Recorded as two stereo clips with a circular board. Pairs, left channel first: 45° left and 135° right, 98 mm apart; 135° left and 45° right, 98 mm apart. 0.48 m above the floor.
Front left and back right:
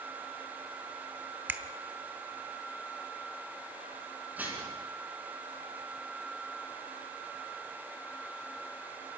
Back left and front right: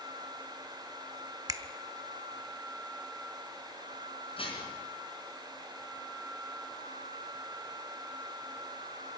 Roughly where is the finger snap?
Right.